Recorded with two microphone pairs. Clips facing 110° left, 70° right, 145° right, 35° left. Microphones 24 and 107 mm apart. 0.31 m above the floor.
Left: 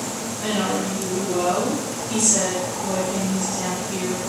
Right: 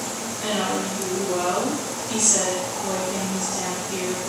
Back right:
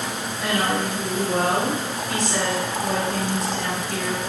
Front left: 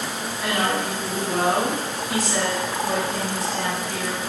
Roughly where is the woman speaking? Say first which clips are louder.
Left 1 dB, back right 1 dB; ahead right.